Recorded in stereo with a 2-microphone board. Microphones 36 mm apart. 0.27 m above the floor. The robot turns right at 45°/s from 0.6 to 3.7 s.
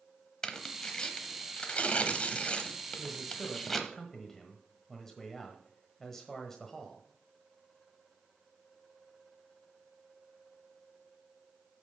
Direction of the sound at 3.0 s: Centre (ahead or behind).